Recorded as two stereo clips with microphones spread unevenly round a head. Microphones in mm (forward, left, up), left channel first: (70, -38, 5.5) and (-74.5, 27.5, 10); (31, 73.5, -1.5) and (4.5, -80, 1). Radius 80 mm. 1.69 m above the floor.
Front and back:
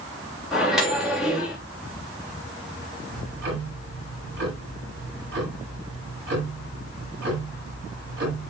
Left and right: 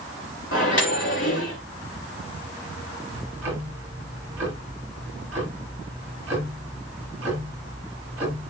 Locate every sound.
0.5 s a microwave: 70° left, 3 m
3.1 s ticking: straight behind, 7.5 m